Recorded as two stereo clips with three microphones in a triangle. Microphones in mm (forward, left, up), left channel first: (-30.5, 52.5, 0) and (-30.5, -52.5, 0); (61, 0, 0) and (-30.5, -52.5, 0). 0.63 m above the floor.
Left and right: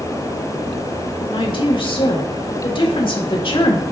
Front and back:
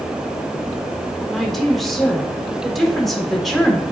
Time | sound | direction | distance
1.2 | a woman speaking | 120° left | 1.8 m